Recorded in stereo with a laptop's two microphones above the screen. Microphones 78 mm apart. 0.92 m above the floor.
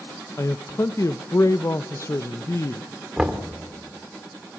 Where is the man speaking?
40° left (ahead or behind), 0.5 m.